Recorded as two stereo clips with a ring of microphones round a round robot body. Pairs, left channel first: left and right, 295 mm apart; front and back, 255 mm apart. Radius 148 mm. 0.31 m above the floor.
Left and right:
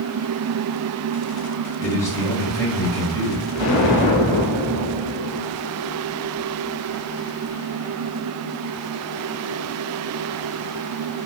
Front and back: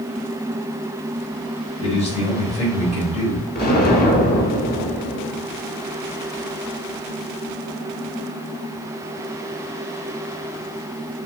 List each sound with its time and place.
1.8 s a man speaking: 20° left, 1.4 m
3.5 s an explosion: 55° left, 1.1 m